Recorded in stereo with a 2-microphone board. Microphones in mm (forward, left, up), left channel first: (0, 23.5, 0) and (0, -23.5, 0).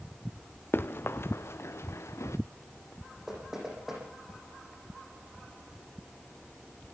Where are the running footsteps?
45° left (ahead or behind), 1.7 m; by 2.4 s 75° left (ahead or behind), 2.0 m.